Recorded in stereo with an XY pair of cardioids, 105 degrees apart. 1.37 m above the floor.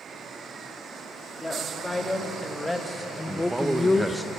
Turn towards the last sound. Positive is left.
turn(degrees=-10)